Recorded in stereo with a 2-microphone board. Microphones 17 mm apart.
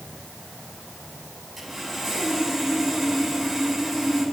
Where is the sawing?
Centre (ahead or behind), 7.5 m.